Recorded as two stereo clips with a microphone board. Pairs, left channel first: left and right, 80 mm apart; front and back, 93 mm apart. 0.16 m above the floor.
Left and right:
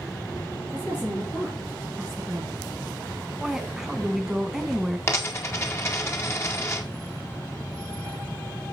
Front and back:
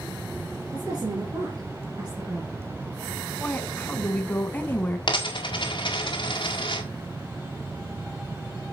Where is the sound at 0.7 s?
145° left, 2.5 m; by 2.6 s 145° right, 2.5 m.